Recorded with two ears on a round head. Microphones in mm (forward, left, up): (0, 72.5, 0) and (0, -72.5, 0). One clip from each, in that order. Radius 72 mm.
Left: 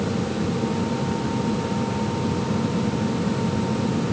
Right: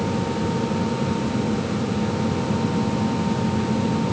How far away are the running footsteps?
No running footsteps in this recording.